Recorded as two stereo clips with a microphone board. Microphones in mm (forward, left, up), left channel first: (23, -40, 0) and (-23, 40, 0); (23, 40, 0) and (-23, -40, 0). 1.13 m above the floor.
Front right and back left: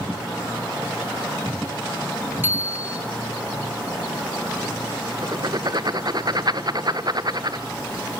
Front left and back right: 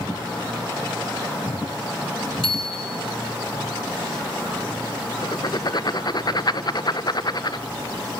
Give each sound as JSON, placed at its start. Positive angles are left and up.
{"t": 2.4, "sound": "a bicycle bell", "azimuth_deg": 55, "distance_m": 3.0}
{"t": 5.2, "sound": "writing", "azimuth_deg": 90, "distance_m": 0.6}